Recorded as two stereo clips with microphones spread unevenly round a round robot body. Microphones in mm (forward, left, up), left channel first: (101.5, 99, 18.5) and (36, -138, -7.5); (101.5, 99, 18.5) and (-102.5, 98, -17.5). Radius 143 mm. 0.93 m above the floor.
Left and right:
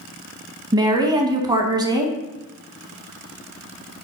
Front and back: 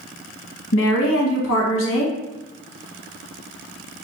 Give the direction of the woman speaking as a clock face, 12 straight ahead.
1 o'clock.